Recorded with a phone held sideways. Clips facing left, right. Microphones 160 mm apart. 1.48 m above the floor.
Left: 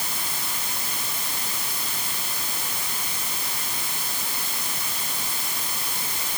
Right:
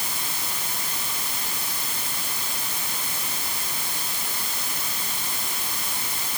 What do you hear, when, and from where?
Only background noise.